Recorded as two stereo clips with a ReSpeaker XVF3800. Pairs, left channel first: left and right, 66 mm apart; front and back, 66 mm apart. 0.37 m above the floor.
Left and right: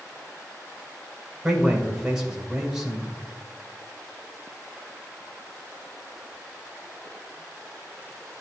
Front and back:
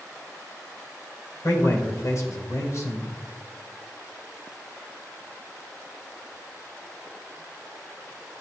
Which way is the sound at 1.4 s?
10° right.